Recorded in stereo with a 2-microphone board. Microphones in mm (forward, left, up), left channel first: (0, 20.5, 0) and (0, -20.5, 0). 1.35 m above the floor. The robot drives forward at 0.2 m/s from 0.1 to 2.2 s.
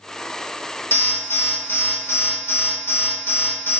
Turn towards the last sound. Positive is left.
turn(degrees=65)  # may be behind; listen again after turning